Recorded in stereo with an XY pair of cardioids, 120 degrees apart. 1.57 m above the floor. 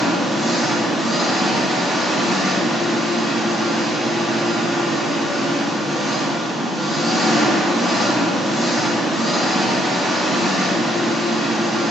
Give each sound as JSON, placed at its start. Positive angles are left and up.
{"t": 0.0, "sound": "an engine running", "azimuth_deg": 10, "distance_m": 3.0}